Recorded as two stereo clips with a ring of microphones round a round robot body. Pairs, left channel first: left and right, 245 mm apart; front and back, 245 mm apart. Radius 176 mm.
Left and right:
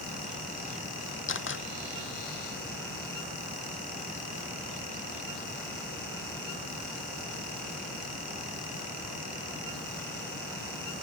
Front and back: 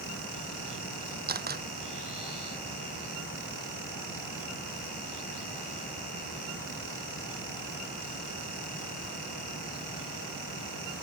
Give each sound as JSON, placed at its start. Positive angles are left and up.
{"t": 1.3, "sound": "a camera shutter", "azimuth_deg": 130}